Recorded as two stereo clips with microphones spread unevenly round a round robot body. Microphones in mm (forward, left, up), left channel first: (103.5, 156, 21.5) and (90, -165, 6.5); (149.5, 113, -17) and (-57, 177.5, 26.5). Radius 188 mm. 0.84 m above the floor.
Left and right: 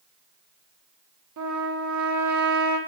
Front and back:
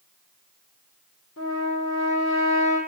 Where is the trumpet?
60° right, 1.2 m.